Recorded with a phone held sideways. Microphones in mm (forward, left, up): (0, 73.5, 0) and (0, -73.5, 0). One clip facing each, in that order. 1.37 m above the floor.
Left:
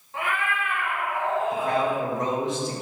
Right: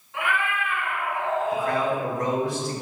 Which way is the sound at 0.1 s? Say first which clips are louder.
Right 1 dB; 40° left (ahead or behind).